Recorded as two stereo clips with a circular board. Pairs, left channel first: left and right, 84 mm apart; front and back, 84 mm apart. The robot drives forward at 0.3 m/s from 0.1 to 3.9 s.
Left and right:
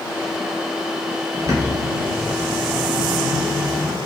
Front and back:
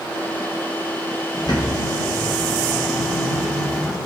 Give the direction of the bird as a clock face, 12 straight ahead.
1 o'clock.